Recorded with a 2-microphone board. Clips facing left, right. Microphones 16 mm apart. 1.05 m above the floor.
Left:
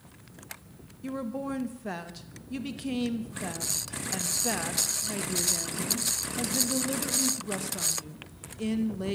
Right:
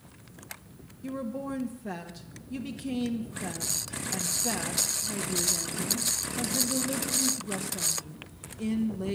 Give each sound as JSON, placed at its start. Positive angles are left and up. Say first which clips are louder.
{"t": 1.0, "sound": "a woman speaking", "louder": "left 1 dB", "side_deg": 15, "distance_m": 1.4}